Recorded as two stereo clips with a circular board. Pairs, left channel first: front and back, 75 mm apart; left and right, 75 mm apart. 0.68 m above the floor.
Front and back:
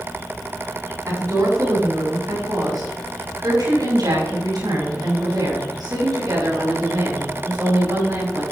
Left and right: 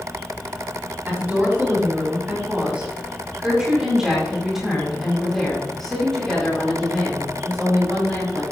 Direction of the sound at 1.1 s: 155° right.